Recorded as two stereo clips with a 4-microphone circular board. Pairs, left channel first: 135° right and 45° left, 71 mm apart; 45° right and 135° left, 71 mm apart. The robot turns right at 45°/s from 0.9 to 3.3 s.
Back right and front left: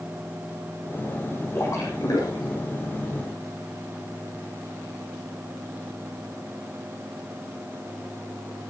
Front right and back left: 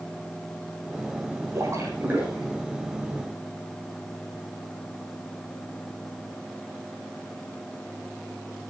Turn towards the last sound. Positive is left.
turn(degrees=-105)